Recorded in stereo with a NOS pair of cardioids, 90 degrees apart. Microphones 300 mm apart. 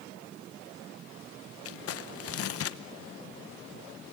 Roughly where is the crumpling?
Ahead left.